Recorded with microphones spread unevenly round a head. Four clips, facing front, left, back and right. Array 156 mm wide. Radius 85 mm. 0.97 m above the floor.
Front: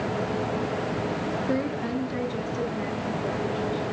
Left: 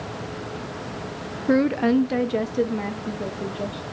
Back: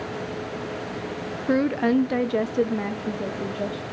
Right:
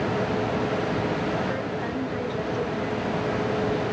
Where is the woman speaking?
85° left, 0.7 m; by 3.8 s 150° left, 2 m.